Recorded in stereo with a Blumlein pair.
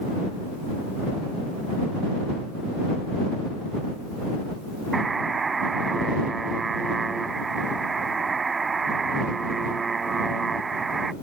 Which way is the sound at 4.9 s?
15° right.